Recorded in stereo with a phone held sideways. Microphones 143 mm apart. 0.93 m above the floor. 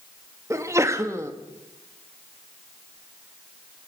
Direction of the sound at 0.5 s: 20° right (ahead or behind).